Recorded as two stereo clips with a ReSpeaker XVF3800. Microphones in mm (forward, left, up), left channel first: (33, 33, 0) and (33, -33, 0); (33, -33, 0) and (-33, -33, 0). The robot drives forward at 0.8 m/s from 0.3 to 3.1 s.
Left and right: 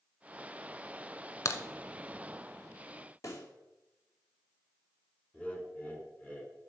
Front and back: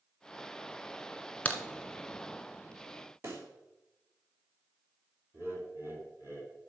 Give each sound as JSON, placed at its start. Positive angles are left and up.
{"t": 1.4, "sound": "a crack", "azimuth_deg": 60, "distance_m": 0.9}
{"t": 3.2, "sound": "a pop", "azimuth_deg": 130, "distance_m": 1.9}
{"t": 5.3, "sound": "laughter", "azimuth_deg": 155, "distance_m": 2.0}